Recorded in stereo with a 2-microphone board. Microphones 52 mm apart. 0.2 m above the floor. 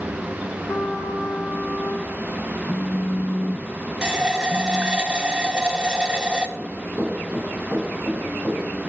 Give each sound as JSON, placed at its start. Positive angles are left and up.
{"t": 0.7, "sound": "a trumpet", "side_deg": 75, "distance_m": 2.5}
{"t": 2.7, "sound": "a phone buzzing", "side_deg": 50, "distance_m": 0.8}
{"t": 4.0, "sound": "a running tap", "side_deg": -15, "distance_m": 0.7}
{"t": 6.6, "sound": "running footsteps", "side_deg": -20, "distance_m": 4.0}